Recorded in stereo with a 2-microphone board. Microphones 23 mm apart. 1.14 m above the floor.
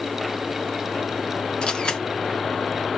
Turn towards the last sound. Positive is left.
turn(degrees=50)  # may be behind; listen again after turning